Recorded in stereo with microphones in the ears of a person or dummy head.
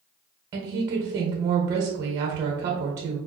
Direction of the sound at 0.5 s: 25° right (ahead or behind).